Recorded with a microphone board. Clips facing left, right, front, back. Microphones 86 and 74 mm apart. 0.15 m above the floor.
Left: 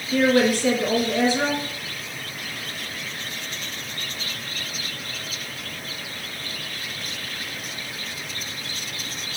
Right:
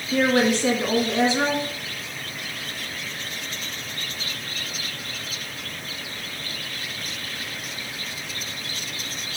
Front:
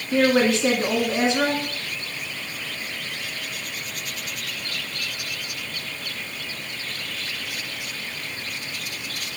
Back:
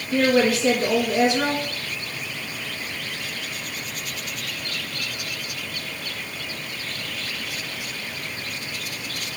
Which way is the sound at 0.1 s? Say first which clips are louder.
Left 1 dB, even; 40° right.